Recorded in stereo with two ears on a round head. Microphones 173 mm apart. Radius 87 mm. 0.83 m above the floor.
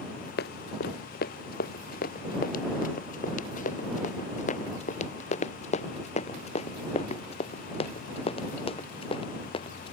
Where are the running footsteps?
55° left (ahead or behind); by 9.9 s 25° left (ahead or behind).